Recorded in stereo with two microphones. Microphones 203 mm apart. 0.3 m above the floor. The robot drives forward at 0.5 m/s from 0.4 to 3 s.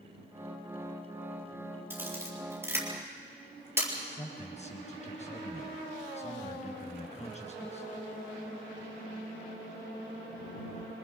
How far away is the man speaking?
About 3.5 m.